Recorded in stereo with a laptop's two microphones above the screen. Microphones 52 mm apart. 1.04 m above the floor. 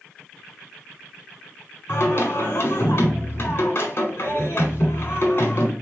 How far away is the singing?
About 1.6 m.